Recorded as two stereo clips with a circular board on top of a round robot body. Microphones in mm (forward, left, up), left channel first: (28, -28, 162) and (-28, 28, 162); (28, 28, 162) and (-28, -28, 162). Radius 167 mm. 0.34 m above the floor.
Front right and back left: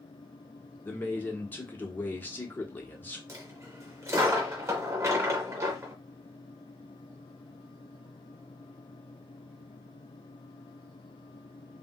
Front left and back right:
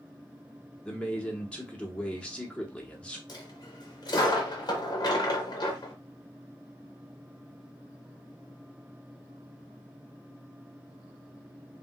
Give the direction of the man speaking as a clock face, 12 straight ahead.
12 o'clock.